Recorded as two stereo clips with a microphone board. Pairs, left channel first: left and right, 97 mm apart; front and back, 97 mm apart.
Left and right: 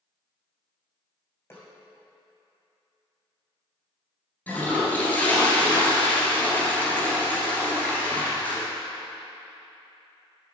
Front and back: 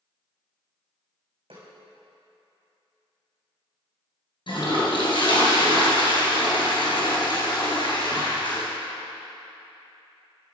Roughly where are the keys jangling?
No keys jangling in this recording.